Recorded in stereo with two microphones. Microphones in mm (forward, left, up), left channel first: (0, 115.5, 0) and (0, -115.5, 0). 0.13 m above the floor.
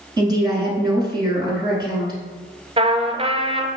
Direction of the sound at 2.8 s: 25° right (ahead or behind).